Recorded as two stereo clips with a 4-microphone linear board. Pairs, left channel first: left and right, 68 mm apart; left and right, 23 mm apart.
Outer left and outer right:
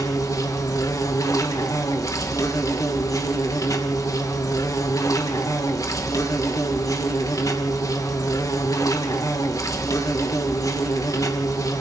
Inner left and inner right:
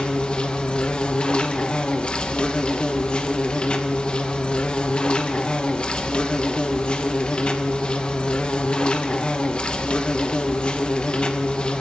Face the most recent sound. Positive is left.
turn(degrees=55)  # may be behind; listen again after turning